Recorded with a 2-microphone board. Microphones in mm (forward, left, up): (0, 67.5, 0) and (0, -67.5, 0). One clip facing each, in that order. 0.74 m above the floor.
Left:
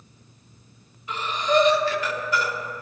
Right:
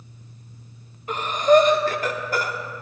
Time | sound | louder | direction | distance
1.1 | breathing | right 6 dB | 50° right (ahead or behind) | 0.7 m